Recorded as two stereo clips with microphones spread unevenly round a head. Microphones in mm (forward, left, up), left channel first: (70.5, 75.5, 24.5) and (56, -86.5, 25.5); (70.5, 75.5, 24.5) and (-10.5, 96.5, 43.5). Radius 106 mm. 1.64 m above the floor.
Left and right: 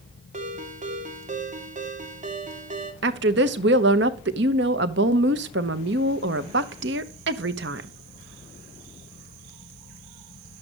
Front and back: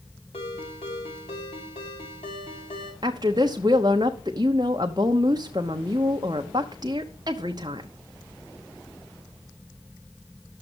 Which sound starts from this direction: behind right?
A woman speaking, at 3.0 s.